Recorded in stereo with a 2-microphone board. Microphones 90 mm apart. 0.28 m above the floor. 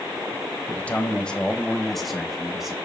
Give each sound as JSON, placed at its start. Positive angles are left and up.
{"t": 0.7, "sound": "a man speaking", "side_deg": 20, "distance_m": 1.0}